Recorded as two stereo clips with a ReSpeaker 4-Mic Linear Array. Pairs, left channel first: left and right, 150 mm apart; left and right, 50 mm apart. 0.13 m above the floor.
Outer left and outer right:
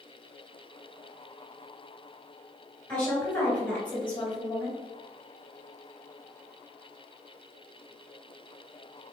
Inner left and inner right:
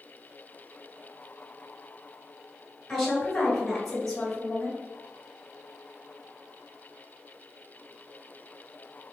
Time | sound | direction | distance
2.9 | a woman speaking | 10° left (ahead or behind) | 1.9 m